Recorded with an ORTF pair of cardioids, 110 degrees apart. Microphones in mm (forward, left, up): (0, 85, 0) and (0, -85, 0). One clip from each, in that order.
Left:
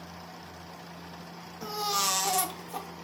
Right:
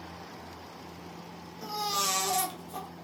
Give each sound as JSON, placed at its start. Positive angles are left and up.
{"t": 1.6, "sound": "a baby crying", "azimuth_deg": 15, "distance_m": 0.6}